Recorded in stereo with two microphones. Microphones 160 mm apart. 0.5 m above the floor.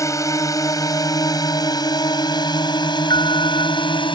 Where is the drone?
20° left (ahead or behind); by 4.2 s 30° left (ahead or behind).